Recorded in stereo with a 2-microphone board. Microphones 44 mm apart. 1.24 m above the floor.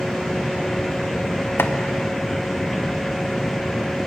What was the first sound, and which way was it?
Chopping, 60° left (ahead or behind).